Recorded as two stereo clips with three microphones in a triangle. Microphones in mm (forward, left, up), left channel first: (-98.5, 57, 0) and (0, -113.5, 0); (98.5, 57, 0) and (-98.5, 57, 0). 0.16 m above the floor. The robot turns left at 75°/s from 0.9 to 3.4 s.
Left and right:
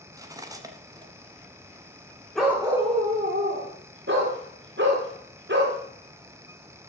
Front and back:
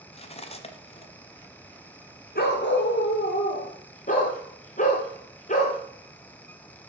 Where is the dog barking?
30° left, 1.8 m; by 5.8 s 45° right, 1.8 m.